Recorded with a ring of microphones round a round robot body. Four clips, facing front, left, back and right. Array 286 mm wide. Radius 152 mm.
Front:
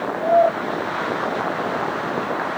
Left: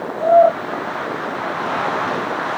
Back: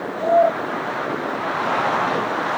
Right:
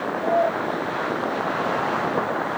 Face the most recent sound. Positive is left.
No sound to turn to.